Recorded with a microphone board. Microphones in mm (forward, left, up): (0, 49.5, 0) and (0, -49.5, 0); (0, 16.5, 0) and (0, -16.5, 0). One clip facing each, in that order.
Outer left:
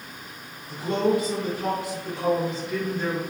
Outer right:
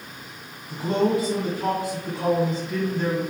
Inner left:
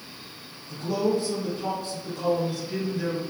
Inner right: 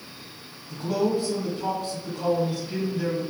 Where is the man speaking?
35° right (ahead or behind), 1.5 m.